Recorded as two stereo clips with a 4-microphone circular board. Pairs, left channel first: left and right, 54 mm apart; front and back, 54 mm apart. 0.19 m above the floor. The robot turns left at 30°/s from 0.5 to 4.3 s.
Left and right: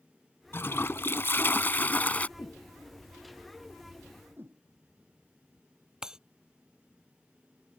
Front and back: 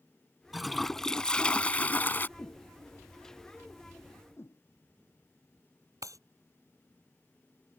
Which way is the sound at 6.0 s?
170° right.